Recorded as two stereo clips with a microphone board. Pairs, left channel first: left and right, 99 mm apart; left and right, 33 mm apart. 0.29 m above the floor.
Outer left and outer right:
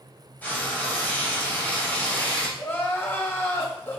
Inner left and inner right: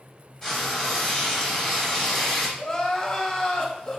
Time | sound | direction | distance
0.4 | frying | 20° left (ahead or behind) | 1.6 m
2.6 | crying | 25° left (ahead or behind) | 0.7 m